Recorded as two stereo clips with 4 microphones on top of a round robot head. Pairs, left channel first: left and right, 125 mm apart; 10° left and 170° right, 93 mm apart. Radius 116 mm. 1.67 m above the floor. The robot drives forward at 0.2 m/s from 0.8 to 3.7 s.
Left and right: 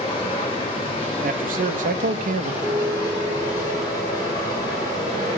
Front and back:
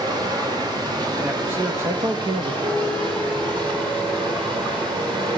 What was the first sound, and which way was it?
Running water, 145° left.